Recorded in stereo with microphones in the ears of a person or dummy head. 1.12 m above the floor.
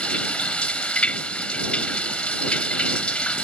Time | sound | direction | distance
0.0 | running water | 5° left (ahead or behind) | ?